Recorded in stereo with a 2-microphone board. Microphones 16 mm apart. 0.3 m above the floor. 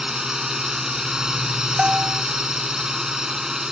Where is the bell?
65° right (ahead or behind).